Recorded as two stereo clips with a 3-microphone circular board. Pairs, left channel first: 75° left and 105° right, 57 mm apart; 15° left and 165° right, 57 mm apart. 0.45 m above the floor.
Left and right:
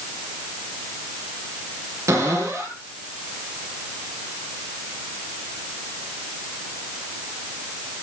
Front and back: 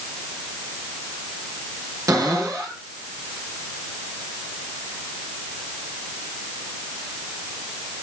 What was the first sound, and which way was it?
A cupboard door, 135° right.